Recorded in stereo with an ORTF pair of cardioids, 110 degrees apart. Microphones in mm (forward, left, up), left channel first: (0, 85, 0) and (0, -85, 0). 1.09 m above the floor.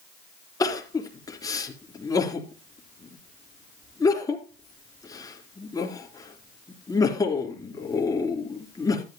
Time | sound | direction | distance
0.6 | crying | 20° left | 3.5 m